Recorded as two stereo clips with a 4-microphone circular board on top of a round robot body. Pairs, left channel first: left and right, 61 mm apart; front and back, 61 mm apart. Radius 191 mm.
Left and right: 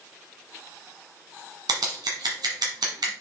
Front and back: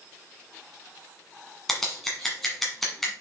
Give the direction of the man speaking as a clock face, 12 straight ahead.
I don't hear a man speaking.